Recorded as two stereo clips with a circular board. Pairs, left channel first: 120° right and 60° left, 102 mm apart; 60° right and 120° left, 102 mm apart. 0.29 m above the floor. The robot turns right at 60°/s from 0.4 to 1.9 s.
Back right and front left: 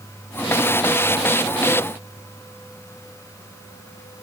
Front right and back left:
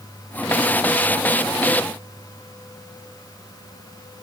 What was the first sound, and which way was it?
Only background noise.